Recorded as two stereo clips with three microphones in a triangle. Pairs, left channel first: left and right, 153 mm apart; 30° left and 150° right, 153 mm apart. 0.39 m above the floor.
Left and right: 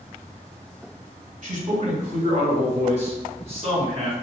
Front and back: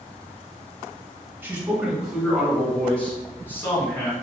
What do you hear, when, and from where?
1.4 s a man speaking: 75° right, 2 m; by 4.1 s 40° right, 3.5 m